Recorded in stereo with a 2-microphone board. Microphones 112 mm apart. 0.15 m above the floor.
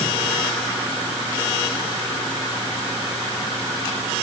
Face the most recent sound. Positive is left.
No sound to turn to.